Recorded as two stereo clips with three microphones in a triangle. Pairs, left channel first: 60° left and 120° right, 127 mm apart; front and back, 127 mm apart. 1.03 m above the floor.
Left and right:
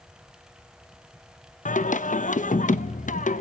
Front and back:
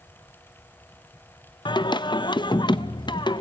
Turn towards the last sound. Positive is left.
turn(degrees=55)